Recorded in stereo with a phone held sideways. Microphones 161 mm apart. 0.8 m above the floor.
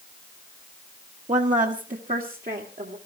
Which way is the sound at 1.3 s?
50° right (ahead or behind).